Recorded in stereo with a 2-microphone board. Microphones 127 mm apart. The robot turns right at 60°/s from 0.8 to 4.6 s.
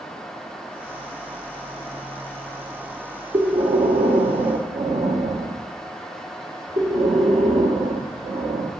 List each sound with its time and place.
3.3 s breathing: 145° right, 0.8 m; by 8.7 s 70° right, 0.8 m